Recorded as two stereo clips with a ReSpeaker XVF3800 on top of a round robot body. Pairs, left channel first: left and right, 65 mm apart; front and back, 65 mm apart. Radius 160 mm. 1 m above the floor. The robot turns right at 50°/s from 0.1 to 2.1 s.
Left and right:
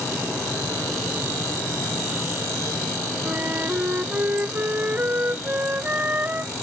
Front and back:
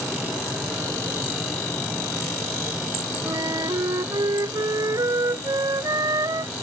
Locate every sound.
3.2 s a flute: 155° right